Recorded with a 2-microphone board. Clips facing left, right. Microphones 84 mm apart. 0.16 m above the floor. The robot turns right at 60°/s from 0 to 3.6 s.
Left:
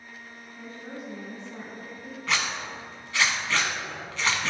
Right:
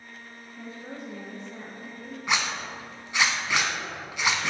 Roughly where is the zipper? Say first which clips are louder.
Right 1 dB; centre.